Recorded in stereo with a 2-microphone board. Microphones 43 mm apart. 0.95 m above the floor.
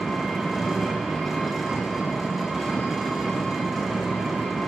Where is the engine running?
10° right (ahead or behind), 1.9 m.